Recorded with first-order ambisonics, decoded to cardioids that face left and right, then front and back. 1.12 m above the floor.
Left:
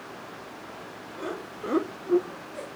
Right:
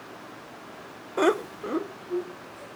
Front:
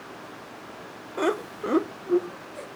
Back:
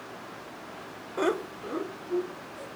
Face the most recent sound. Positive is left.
turn(degrees=55)